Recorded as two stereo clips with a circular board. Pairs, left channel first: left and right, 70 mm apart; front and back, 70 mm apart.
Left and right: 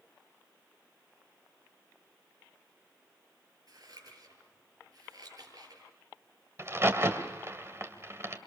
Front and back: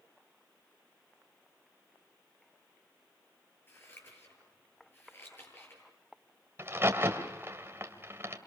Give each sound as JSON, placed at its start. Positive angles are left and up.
{"t": 3.7, "sound": "scissors", "azimuth_deg": -60, "distance_m": 9.5}
{"t": 6.6, "sound": "a crack", "azimuth_deg": -135, "distance_m": 1.9}